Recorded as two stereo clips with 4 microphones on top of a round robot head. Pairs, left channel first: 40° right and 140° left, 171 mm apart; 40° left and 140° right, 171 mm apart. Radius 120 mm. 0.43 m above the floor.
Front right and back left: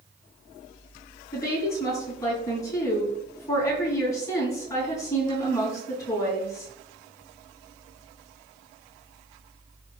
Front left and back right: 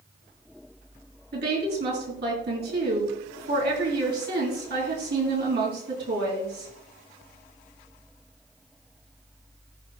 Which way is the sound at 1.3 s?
110° right.